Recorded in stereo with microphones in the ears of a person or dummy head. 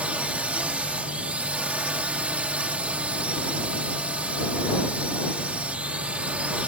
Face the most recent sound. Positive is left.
turn(degrees=-10)  # may be behind; listen again after turning